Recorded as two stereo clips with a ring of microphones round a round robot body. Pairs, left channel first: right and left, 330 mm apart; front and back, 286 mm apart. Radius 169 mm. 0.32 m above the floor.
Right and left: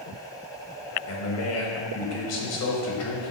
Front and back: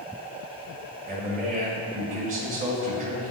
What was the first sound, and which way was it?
A man speaking, 120° right.